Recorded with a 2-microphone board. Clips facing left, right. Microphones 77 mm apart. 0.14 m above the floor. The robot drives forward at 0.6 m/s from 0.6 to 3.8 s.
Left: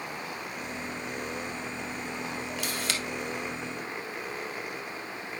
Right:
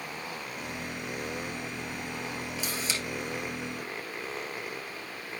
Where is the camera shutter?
65° left (ahead or behind), 1.3 m.